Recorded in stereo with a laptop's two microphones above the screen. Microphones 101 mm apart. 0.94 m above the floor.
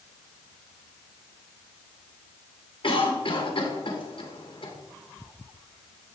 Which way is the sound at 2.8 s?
60° left (ahead or behind).